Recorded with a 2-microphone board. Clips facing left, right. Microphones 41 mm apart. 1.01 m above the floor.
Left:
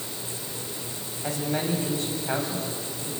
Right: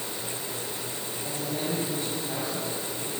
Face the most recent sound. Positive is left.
turn(degrees=75)  # may be behind; listen again after turning